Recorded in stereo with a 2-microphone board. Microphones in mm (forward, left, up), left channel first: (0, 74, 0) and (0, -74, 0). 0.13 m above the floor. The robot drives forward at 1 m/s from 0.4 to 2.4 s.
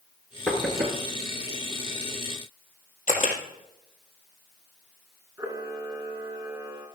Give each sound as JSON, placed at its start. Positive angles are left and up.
{"t": 0.5, "sound": "knocking", "side_deg": 10, "distance_m": 1.5}
{"t": 3.1, "sound": "a camera shutter", "side_deg": 60, "distance_m": 2.5}
{"t": 5.4, "sound": "a camera shutter", "side_deg": -15, "distance_m": 1.9}